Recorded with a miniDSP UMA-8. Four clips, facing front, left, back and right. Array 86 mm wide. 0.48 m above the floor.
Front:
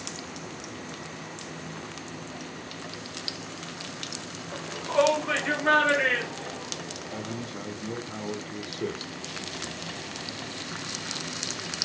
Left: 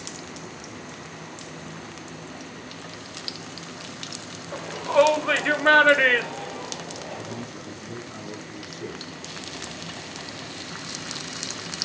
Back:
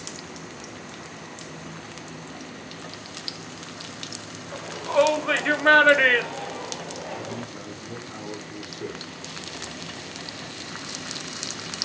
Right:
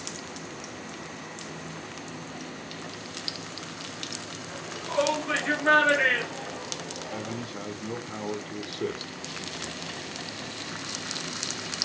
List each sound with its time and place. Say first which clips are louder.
4.5 s a shout: left 9 dB, back 3 dB; 105° left, 1.6 m; by 7.5 s 175° left, 1.7 m
7.1 s a man speaking: even, back 1 dB; 70° right, 1.4 m